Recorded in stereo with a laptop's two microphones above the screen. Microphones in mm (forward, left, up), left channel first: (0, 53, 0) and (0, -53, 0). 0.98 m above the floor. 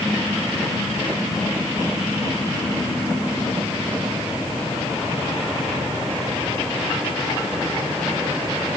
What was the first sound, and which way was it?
Only background noise.